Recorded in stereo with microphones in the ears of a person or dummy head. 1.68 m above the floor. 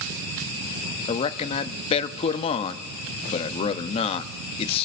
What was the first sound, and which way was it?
A man speaking, 30° left (ahead or behind).